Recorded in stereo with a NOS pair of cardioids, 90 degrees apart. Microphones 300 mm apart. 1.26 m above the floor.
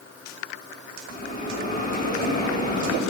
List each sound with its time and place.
1.1 s a bell: 30° left, 3.5 m